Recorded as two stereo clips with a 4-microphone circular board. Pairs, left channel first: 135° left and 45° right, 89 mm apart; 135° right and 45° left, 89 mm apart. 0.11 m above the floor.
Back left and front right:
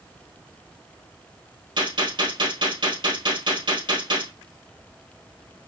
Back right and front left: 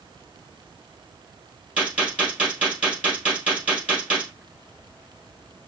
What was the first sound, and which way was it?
A gunshot, 30° right.